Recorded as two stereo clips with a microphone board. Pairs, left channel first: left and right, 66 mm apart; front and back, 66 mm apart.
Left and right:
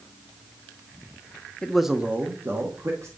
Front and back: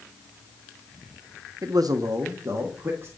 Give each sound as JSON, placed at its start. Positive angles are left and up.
{"t": 1.6, "sound": "a man speaking", "azimuth_deg": 165, "distance_m": 0.6}